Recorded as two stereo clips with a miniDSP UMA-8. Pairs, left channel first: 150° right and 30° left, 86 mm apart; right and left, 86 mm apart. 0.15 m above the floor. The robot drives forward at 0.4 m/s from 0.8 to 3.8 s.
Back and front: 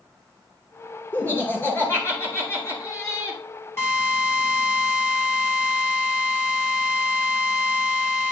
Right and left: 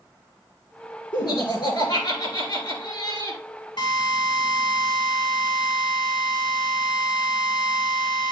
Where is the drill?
95° right, 2.5 m.